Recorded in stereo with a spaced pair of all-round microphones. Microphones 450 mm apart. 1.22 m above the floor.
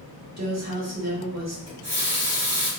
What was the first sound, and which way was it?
A woman speaking, 35° right (ahead or behind).